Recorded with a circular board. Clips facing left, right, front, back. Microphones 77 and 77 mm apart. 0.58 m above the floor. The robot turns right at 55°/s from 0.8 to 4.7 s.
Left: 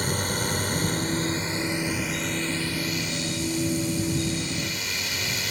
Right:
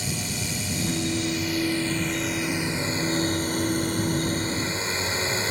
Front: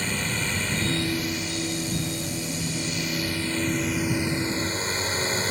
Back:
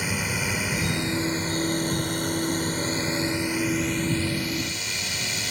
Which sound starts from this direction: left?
A drone, at 0.0 s.